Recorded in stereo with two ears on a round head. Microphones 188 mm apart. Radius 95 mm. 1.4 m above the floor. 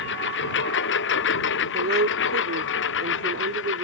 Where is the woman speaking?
55° right (ahead or behind).